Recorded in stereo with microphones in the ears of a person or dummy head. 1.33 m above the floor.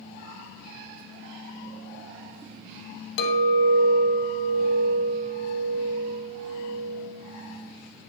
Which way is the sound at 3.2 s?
60° left (ahead or behind).